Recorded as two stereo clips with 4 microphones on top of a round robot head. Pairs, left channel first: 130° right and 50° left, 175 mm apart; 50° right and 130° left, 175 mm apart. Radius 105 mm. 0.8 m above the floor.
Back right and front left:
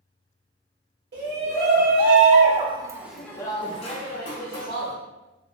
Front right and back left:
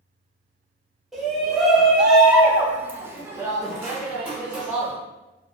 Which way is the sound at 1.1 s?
40° left.